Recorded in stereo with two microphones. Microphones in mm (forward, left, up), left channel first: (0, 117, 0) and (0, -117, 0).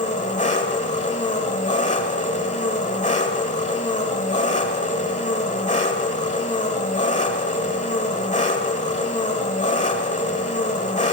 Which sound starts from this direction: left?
An engine running, at 0.0 s.